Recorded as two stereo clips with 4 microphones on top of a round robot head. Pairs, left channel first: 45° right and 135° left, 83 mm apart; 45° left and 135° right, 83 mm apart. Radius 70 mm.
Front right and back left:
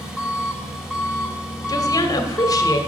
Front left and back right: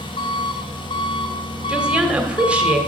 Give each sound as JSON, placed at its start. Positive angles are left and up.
{"t": 0.0, "sound": "an engine running", "azimuth_deg": 55, "distance_m": 1.6}
{"t": 1.7, "sound": "a woman speaking", "azimuth_deg": -65, "distance_m": 1.4}